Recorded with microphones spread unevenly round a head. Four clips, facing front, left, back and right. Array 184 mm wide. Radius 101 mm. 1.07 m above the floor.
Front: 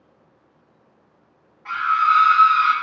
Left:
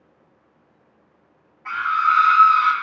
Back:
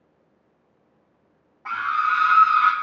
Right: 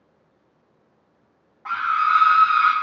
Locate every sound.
1.6 s a scream: 145° right, 2.0 m; by 2.7 s 150° right, 1.5 m